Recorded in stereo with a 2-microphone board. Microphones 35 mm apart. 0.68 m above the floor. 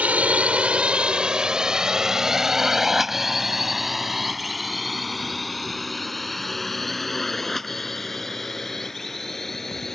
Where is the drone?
50° right (ahead or behind); by 9.9 s 10° left (ahead or behind).